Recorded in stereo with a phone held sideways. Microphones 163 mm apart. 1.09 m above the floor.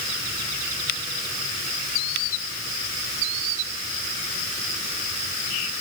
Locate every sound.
Only background noise.